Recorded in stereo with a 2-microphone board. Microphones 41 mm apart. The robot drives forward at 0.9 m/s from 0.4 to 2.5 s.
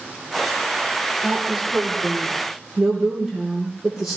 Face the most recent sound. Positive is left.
turn(degrees=-5)  # may be behind; listen again after turning